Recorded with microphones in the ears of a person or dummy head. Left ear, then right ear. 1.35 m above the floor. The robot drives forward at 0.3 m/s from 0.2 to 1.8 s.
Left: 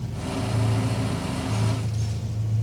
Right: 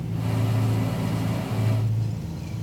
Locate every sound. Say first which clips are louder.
0.0 s an engine running: even; 5° right (ahead or behind), 1.2 m; by 2.6 s centre (ahead or behind), 1.7 m